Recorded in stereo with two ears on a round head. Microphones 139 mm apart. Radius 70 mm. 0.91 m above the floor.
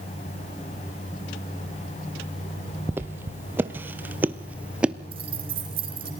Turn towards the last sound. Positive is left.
turn(degrees=-35)  # may be behind; listen again after turning